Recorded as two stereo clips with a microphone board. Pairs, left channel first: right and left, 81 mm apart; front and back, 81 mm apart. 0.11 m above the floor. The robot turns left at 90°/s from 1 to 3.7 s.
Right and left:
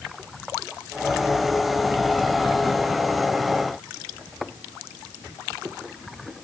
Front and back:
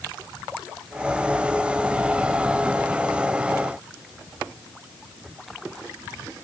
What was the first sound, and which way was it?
Only background noise.